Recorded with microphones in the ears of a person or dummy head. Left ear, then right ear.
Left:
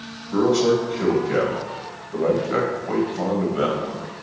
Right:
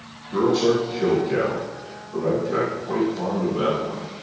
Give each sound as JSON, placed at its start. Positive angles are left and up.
{"t": 0.3, "sound": "a man speaking", "side_deg": 40, "distance_m": 1.6}